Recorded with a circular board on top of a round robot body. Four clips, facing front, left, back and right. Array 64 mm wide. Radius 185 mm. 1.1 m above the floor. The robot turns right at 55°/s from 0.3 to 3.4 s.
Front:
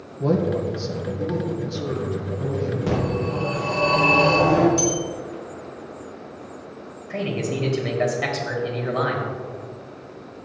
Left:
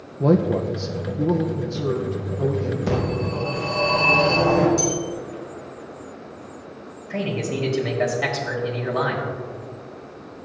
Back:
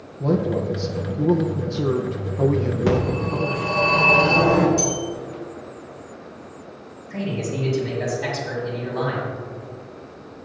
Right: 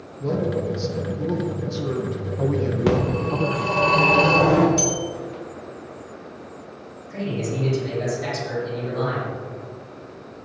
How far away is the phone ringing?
About 4 m.